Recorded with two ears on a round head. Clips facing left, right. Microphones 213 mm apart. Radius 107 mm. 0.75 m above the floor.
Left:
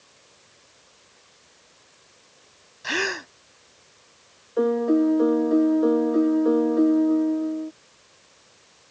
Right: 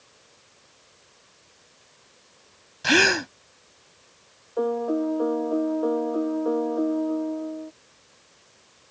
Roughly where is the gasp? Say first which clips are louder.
Right 7 dB; right.